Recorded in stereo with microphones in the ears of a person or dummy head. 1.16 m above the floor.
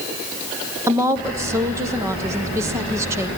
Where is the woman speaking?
20° right (ahead or behind), 0.6 m.